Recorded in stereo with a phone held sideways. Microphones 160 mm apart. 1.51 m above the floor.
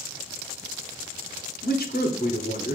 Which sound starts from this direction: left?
A man speaking, at 1.6 s.